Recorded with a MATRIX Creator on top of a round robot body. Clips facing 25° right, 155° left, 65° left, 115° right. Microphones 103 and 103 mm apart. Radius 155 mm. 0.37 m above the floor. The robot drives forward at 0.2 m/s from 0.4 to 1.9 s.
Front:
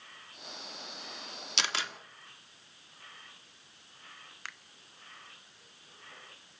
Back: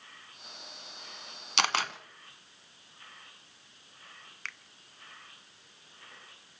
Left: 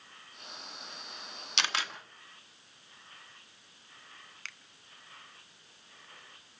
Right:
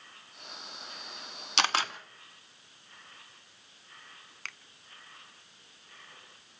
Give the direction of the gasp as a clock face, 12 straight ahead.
I don't hear a gasp.